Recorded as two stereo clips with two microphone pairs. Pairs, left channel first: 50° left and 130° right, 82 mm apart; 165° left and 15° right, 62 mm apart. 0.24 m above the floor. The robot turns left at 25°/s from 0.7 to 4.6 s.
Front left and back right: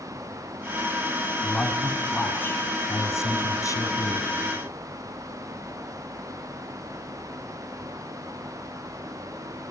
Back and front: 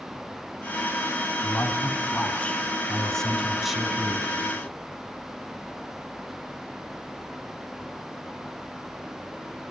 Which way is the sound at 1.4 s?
125° left.